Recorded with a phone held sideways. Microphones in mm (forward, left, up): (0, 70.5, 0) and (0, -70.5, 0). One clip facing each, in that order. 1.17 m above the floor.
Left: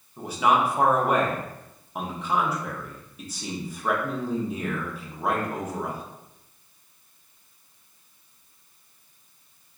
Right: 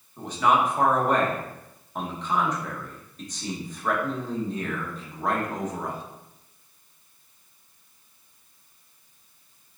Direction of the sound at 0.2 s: 10° left (ahead or behind).